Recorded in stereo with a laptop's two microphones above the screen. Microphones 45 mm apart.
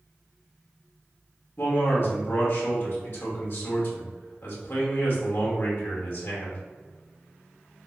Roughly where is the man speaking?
Left.